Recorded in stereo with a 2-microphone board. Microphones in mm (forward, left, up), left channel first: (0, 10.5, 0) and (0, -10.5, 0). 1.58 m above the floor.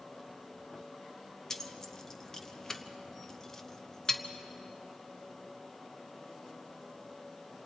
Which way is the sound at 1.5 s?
20° left (ahead or behind).